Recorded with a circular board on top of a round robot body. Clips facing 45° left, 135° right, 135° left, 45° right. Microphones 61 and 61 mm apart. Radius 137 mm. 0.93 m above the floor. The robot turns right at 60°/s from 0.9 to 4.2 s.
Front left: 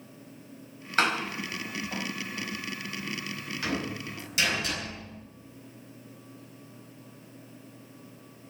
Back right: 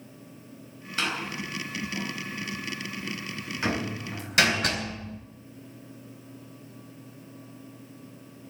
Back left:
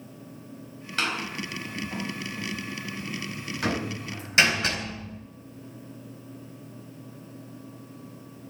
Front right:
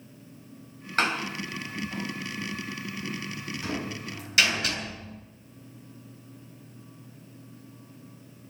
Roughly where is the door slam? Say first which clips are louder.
Front left 4 dB, front right 3 dB; ahead.